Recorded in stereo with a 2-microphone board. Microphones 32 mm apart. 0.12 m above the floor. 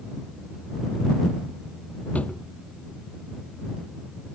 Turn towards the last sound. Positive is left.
turn(degrees=50)  # may be behind; listen again after turning